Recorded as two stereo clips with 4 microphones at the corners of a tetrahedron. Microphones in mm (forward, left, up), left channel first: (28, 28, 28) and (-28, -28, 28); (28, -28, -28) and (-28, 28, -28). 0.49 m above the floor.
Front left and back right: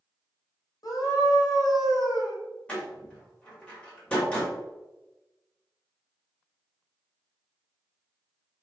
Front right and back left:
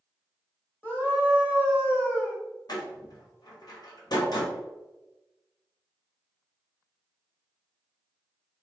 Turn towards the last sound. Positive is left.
turn(degrees=-30)